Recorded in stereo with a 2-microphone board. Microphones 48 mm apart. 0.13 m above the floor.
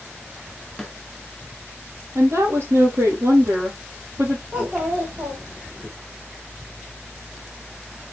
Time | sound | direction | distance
0.8 | a snare drum | 5° left (ahead or behind) | 1.9 m
2.1 | a woman speaking | 70° right (ahead or behind) | 3.5 m
4.5 | a child speaking | 30° right (ahead or behind) | 4.5 m